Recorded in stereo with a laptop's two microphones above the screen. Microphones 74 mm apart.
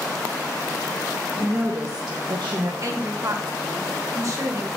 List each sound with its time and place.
1.4 s a woman speaking: 35° right (ahead or behind), 1.5 m; by 2.7 s 70° right (ahead or behind), 1.0 m
2.8 s a woman speaking: 50° right (ahead or behind), 1.6 m